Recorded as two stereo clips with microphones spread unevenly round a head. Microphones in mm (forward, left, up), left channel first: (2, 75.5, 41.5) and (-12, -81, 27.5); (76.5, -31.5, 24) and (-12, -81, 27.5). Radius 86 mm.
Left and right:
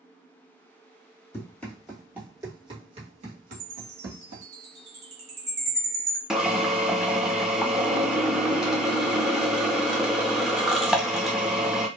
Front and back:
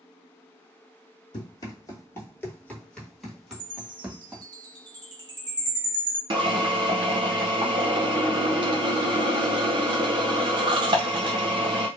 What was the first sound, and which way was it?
Running footsteps, 25° left.